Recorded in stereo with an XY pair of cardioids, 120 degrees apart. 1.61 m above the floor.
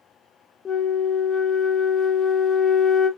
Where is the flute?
30° left, 0.9 m.